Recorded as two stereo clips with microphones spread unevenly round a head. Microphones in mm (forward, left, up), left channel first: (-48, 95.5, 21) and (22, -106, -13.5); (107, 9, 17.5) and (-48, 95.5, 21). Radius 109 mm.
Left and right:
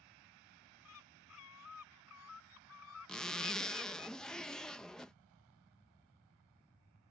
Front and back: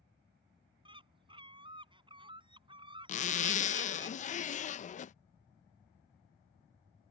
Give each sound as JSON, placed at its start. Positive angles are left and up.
{"t": 0.8, "sound": "a bird", "azimuth_deg": 90}
{"t": 3.1, "sound": "a zipper", "azimuth_deg": 20}